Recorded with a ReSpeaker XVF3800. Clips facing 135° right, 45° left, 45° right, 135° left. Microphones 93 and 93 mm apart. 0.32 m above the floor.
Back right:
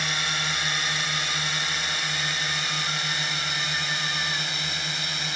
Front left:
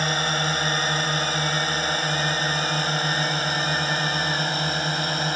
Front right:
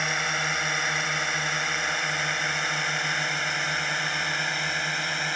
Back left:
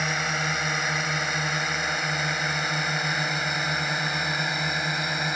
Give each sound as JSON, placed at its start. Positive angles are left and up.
{"t": 0.0, "sound": "a drone", "azimuth_deg": 50}